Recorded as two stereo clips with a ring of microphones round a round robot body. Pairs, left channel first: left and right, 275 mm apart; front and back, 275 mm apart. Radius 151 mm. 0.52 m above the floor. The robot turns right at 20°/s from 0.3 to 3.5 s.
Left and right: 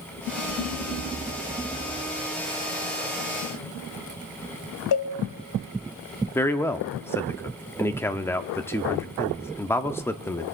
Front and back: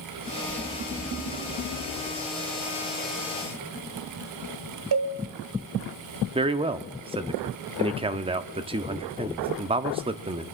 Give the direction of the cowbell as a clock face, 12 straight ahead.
8 o'clock.